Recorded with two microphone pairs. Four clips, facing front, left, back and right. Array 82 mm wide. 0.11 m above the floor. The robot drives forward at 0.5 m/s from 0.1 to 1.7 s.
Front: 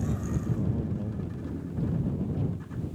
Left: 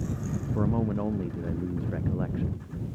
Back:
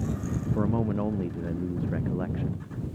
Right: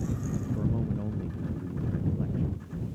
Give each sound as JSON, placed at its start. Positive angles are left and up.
{"t": 0.6, "sound": "a man speaking", "azimuth_deg": 135}